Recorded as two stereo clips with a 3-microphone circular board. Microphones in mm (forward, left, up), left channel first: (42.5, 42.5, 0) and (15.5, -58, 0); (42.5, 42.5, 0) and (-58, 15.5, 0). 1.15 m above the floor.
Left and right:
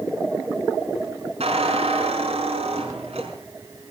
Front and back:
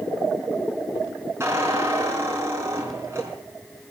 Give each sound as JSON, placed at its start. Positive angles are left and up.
{"t": 1.4, "sound": "a squeak", "azimuth_deg": -100, "distance_m": 5.0}